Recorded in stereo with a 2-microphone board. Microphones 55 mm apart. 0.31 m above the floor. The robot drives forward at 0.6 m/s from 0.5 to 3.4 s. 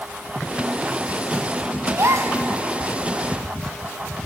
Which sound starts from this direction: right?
A gasp, at 1.9 s.